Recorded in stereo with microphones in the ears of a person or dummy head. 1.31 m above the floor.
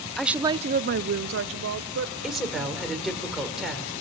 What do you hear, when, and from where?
0.2 s a woman speaking: centre (ahead or behind), 0.6 m; by 2.1 s 65° right (ahead or behind), 1.3 m
2.2 s a woman speaking: 5° right (ahead or behind), 3.5 m